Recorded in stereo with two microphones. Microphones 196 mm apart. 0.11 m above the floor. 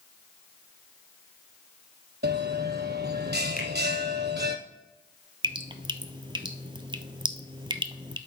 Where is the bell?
60° right (ahead or behind), 0.8 m.